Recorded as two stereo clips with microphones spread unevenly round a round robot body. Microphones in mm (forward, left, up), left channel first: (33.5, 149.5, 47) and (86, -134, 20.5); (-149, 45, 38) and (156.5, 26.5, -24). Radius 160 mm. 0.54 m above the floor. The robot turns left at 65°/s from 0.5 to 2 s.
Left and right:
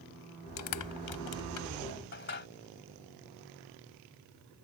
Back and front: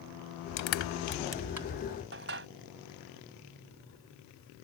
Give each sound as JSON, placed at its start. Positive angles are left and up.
{"t": 0.6, "sound": "crushing", "azimuth_deg": 140}